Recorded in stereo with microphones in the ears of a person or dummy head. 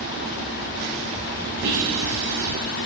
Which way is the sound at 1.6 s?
55° right (ahead or behind).